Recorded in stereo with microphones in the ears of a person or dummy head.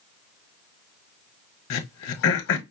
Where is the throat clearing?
60° left (ahead or behind), 0.9 m.